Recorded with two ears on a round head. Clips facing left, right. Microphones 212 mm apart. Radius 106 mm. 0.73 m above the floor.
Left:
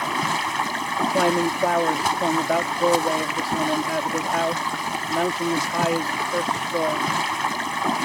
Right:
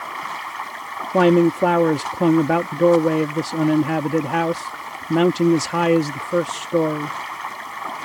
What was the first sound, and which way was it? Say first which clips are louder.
Running water: left 8 dB; 60° left (ahead or behind).